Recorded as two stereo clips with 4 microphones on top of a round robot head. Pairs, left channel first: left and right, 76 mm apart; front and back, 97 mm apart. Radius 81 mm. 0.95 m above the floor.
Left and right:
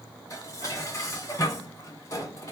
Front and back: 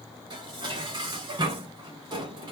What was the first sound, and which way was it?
Dishes clattering, 140° left.